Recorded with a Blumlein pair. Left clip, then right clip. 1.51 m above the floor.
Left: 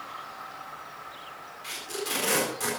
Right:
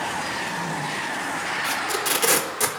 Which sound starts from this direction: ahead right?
Tape being pulled, at 1.6 s.